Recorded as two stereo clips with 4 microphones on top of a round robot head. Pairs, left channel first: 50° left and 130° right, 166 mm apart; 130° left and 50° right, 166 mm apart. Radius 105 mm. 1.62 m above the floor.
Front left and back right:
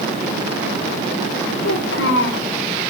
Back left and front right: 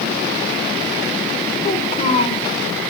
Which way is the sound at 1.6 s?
70° left.